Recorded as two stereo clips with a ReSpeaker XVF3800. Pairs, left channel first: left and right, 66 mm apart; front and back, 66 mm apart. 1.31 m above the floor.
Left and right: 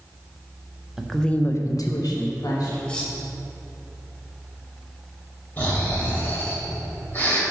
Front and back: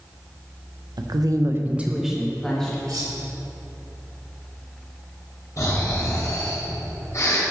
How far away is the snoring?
About 2 m.